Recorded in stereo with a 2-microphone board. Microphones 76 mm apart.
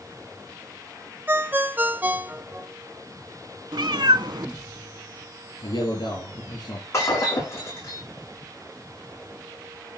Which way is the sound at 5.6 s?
70° left (ahead or behind).